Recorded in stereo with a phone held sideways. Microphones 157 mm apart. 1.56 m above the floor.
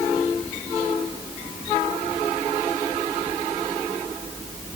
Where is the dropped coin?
I don't hear a dropped coin.